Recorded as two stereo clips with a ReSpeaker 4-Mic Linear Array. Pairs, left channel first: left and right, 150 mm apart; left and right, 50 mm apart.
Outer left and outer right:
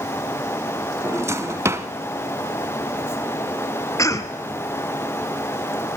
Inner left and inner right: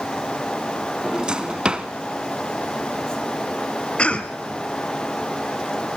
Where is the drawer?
20° right (ahead or behind), 0.8 m.